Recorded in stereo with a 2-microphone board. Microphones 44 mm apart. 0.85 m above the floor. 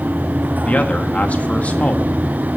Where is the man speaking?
35° left (ahead or behind), 1.7 m.